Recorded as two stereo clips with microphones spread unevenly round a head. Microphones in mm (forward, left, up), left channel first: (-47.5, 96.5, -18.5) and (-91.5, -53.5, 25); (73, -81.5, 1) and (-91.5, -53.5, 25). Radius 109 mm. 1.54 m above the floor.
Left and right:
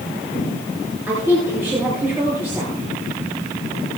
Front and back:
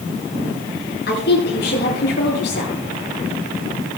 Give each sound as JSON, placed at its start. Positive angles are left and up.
{"t": 1.1, "sound": "a woman speaking", "azimuth_deg": -25, "distance_m": 8.5}